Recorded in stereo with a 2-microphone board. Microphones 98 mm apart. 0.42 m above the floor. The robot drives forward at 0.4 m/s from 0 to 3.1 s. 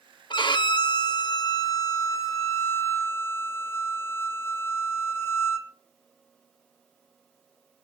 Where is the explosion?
No explosion in this recording.